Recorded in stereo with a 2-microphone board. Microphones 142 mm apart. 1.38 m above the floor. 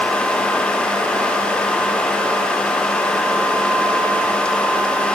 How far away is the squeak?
No squeak in this recording.